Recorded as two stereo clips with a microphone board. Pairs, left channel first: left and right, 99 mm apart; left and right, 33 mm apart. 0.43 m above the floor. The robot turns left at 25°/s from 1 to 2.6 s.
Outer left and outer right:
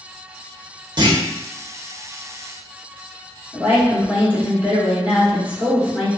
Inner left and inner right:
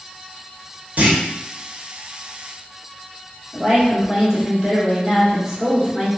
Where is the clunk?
45° right (ahead or behind), 0.7 m.